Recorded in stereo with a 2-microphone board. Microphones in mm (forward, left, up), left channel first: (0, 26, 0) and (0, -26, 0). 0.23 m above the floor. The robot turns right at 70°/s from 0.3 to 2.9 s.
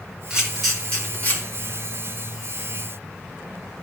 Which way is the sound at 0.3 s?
15° right (ahead or behind).